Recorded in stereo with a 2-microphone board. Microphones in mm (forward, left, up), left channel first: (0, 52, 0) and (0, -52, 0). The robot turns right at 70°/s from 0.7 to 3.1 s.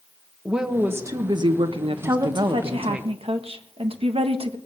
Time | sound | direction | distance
0.5 | a woman speaking | 170° right | 1.0 m
2.0 | a woman speaking | 155° right | 1.4 m